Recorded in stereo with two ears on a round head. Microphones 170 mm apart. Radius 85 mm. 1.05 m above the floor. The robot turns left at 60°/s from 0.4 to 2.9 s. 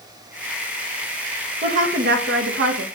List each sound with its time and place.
1.6 s a woman speaking: 40° right, 1.4 m; by 2.9 s 115° right, 1.4 m